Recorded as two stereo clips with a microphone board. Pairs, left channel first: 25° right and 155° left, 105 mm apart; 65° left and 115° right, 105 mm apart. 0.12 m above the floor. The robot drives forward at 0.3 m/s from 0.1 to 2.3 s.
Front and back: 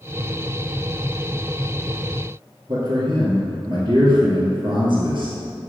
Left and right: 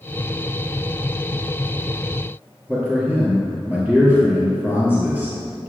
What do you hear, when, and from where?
2.7 s a man speaking: 175° left, 2.0 m